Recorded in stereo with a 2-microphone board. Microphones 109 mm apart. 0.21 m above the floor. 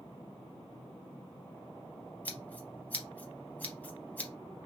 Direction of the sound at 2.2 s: 15° left (ahead or behind).